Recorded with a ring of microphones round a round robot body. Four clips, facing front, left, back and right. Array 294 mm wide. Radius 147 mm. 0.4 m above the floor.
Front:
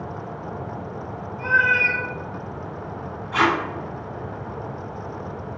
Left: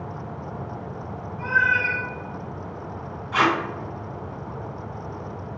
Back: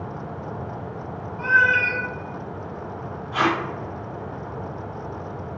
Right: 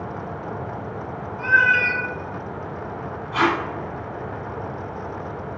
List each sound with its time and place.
1.4 s a cat meowing: 125° right, 0.8 m
3.3 s tape being pulled: 65° left, 1.1 m